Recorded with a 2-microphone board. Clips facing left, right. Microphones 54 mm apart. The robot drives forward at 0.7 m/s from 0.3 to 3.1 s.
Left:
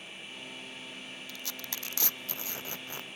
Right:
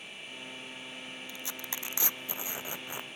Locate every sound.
1.3 s tearing paper: 20° right (ahead or behind); by 3.2 s 15° right (ahead or behind)